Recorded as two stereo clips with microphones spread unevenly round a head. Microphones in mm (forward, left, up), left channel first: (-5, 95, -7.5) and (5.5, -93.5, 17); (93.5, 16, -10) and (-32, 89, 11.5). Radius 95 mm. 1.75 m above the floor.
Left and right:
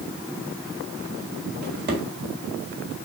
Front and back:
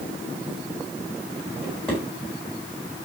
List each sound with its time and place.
1.6 s a drawer: 115° right, 4 m